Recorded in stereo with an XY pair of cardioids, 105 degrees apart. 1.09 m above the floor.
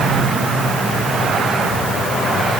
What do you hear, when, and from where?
Only background noise.